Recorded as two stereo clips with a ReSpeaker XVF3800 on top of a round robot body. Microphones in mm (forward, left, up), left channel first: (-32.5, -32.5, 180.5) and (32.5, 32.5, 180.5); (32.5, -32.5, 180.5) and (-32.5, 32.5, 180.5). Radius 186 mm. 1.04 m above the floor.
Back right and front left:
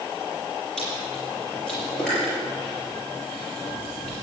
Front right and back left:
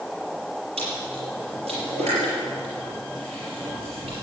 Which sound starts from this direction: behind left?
Chewing, at 0.8 s.